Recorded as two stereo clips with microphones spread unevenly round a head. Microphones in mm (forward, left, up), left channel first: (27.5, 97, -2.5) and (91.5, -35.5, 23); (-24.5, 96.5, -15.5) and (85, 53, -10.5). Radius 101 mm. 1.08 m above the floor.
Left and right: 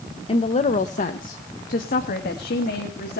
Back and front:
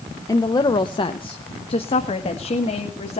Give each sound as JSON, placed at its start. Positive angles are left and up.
{"t": 0.3, "sound": "a woman speaking", "azimuth_deg": 110, "distance_m": 0.7}